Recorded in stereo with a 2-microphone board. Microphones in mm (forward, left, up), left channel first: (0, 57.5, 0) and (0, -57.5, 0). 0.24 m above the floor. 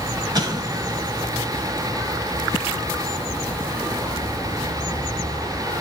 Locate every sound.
0.3 s an explosion: 40° right (ahead or behind), 0.9 m